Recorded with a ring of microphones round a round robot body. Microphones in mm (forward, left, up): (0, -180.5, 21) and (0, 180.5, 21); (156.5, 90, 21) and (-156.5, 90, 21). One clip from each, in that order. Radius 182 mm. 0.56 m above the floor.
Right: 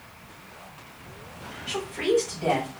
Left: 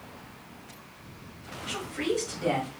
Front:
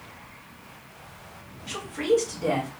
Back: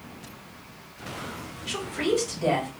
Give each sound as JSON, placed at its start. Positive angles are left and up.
{"t": 1.6, "sound": "a woman speaking", "azimuth_deg": 165, "distance_m": 1.5}